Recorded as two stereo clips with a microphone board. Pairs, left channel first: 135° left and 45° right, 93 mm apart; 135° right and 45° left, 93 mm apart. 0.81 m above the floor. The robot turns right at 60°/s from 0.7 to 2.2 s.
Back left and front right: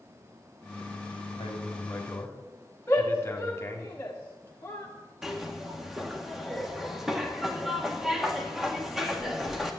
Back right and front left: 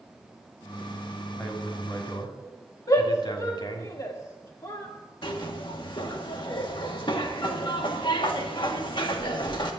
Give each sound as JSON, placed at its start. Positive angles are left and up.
{"t": 1.4, "sound": "a man speaking", "azimuth_deg": 145, "distance_m": 2.5}
{"t": 2.9, "sound": "a shout", "azimuth_deg": -165, "distance_m": 1.7}
{"t": 5.2, "sound": "a zipper", "azimuth_deg": -130, "distance_m": 1.7}